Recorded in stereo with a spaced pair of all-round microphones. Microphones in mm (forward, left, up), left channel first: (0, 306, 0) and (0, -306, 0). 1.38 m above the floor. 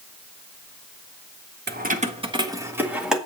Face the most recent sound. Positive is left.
turn(degrees=0)  # may be behind; listen again after turning